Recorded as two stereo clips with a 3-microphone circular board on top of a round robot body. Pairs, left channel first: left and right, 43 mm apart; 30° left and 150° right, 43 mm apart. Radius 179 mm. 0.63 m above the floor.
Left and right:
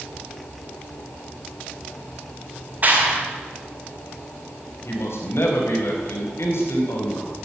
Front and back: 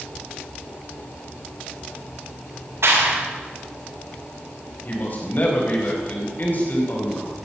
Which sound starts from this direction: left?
A man speaking, at 4.8 s.